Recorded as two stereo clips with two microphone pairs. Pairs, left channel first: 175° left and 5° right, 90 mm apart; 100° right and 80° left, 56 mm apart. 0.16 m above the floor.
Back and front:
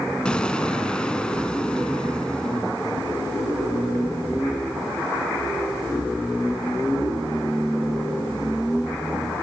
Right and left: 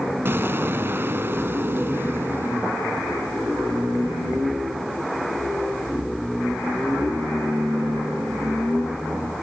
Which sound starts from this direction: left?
An explosion, at 0.2 s.